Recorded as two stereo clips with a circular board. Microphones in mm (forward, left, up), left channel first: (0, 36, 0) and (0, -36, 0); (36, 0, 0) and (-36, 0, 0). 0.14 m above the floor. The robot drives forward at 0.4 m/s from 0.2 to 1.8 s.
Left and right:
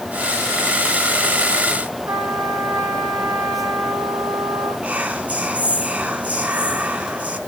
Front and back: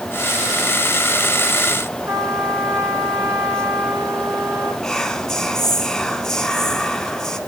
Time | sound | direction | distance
2.1 | a trumpet | 145° right | 3 m
4.8 | whispering | 70° right | 1.3 m